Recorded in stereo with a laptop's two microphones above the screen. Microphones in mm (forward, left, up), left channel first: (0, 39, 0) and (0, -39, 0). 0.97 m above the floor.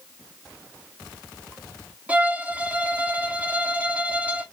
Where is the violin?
20° right (ahead or behind), 0.7 m.